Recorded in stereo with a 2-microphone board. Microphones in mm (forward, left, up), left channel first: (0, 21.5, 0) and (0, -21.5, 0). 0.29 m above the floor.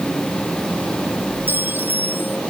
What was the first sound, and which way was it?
A clink, 55° right (ahead or behind).